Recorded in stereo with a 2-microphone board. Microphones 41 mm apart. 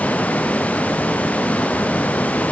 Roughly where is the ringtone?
I don't hear a ringtone.